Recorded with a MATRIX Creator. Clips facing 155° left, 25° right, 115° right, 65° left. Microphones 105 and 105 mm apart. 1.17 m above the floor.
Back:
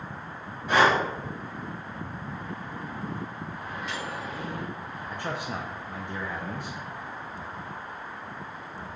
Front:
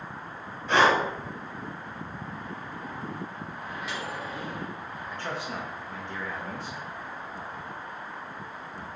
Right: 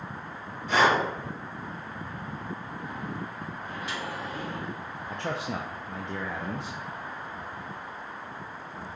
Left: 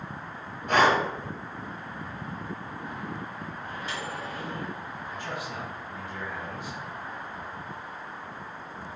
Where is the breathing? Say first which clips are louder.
Even, left 1 dB; 80° left, 1.7 m.